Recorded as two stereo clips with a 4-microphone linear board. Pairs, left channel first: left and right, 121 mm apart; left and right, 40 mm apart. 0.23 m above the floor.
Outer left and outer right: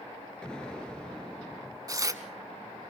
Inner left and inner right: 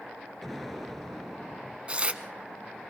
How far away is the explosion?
About 1.7 m.